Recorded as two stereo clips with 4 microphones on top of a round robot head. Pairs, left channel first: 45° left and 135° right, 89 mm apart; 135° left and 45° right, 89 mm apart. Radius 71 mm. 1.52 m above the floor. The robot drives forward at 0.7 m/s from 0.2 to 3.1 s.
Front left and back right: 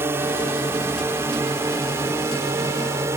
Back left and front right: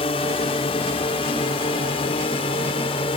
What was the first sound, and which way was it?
A drone, 160° left.